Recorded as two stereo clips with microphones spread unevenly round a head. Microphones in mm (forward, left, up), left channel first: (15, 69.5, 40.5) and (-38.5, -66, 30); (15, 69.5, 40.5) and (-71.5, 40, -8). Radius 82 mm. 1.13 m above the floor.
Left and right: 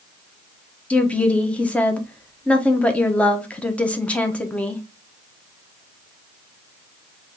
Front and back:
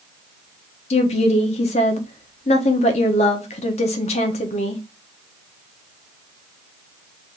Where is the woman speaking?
15° right, 0.8 m.